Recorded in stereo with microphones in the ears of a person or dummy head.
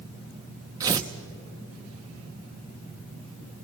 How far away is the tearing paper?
About 0.6 m.